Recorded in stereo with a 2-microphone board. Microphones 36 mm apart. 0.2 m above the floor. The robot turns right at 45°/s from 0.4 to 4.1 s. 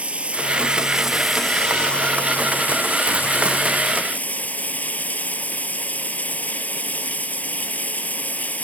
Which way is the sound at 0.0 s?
40° right.